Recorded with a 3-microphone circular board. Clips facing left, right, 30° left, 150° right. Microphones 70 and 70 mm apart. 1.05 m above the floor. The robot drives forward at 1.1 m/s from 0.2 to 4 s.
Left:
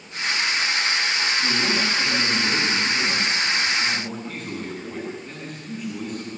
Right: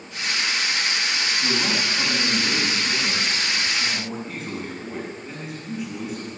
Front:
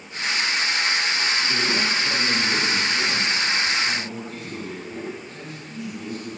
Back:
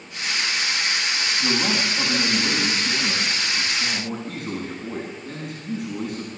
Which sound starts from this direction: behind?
A man speaking, at 1.4 s.